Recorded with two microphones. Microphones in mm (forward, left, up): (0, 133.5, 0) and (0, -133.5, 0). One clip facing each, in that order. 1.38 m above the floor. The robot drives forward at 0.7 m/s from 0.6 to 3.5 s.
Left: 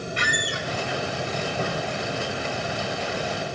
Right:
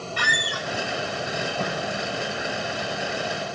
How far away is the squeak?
About 0.5 m.